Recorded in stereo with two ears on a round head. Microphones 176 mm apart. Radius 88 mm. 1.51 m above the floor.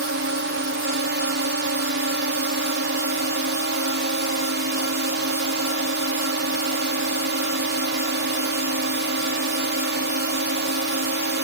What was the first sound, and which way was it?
A drone, 60° right (ahead or behind).